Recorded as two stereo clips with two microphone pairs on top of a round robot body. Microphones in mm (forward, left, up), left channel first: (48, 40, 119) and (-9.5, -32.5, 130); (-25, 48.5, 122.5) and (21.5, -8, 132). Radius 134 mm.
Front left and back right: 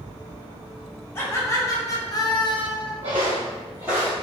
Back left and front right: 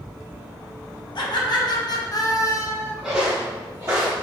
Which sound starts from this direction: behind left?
Laughter, at 1.1 s.